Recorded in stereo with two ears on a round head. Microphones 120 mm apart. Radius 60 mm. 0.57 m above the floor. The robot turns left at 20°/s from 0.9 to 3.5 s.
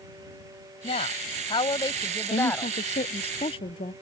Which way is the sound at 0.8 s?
50° left.